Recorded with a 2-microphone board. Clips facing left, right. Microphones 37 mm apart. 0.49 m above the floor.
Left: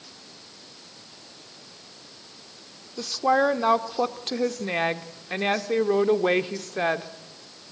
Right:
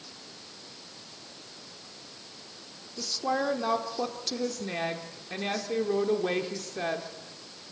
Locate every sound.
3.0 s a woman speaking: 40° left (ahead or behind), 1.0 m